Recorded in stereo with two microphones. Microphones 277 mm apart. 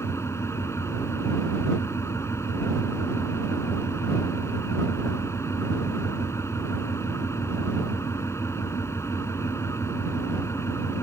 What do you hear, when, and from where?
0.0 s an engine running: 10° left (ahead or behind)